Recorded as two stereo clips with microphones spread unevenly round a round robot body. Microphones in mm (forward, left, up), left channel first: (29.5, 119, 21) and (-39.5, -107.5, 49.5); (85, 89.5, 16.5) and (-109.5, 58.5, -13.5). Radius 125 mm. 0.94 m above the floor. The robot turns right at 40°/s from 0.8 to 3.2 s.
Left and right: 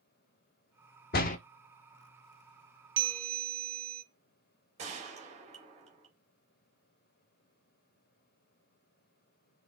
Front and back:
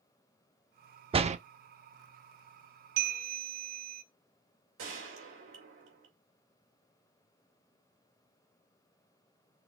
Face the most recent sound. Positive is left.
turn(degrees=-170)